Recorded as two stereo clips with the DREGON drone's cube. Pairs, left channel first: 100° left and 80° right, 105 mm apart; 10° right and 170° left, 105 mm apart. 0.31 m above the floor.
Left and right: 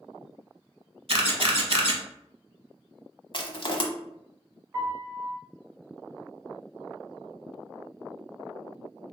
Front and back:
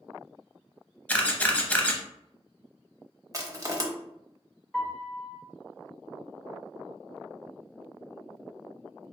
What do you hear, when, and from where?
1.1 s a camera shutter: 85° right, 0.7 m
3.3 s crushing: 115° left, 0.7 m
4.7 s a piano: 75° right, 1.4 m